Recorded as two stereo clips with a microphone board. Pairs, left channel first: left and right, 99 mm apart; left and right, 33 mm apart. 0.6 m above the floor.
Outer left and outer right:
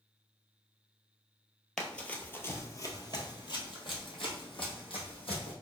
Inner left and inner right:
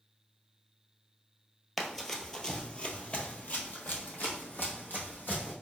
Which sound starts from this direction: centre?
Running footsteps, at 1.8 s.